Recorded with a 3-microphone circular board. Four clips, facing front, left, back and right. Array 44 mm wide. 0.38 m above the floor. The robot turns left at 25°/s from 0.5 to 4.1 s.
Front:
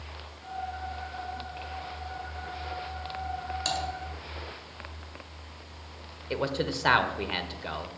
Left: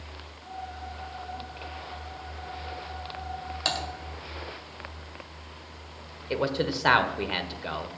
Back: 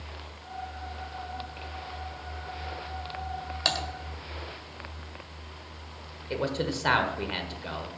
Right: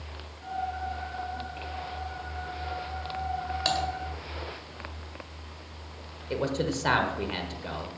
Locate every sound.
3.6 s typing on a keyboard: straight behind, 1.8 m; by 3.8 s 175° left, 1.8 m
6.3 s a man speaking: 65° left, 1.2 m